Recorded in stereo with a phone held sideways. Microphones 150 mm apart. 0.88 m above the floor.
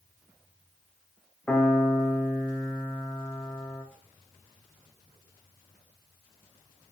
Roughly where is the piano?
Centre.